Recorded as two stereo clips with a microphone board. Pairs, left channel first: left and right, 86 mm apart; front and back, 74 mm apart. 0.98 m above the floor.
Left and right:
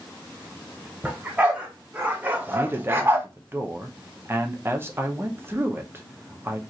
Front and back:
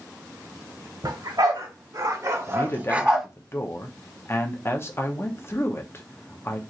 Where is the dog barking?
165° right, 1.4 m; by 3.3 s 90° right, 0.6 m.